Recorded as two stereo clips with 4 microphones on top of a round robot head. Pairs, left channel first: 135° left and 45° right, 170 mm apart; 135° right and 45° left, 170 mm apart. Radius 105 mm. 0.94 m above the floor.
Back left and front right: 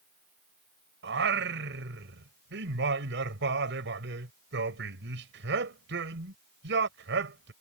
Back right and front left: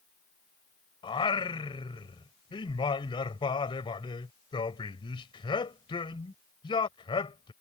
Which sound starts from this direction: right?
Singing, at 1.0 s.